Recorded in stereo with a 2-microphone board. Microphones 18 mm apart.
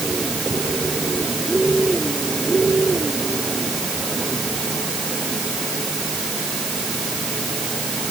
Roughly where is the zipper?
I don't hear a zipper.